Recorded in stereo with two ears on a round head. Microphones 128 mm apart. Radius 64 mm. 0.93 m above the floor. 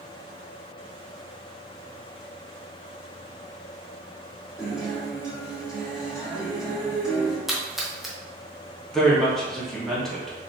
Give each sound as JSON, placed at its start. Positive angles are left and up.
{"t": 4.6, "sound": "a guitar", "side_deg": -5, "distance_m": 1.3}
{"t": 7.5, "sound": "a splash", "side_deg": 0, "distance_m": 0.6}
{"t": 8.9, "sound": "a woman speaking", "side_deg": 5, "distance_m": 1.2}